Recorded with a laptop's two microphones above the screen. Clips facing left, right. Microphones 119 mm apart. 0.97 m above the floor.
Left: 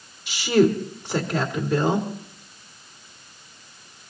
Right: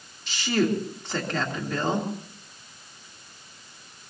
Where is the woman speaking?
15° left (ahead or behind), 3 m.